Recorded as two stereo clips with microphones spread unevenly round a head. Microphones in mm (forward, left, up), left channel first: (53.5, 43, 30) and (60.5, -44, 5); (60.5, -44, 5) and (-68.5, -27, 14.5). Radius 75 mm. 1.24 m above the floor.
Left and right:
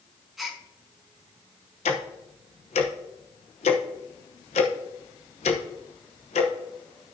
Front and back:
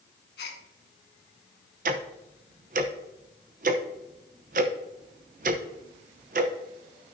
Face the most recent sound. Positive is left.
turn(degrees=130)